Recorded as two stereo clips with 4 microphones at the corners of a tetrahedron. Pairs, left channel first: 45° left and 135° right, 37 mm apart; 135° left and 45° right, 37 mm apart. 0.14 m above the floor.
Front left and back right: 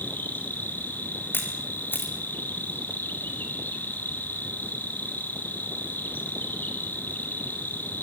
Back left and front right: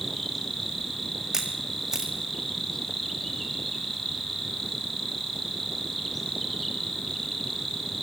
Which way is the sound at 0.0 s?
50° left.